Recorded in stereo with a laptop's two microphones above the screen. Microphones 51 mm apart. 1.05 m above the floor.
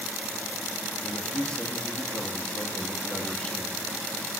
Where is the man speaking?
15° left (ahead or behind), 2 m.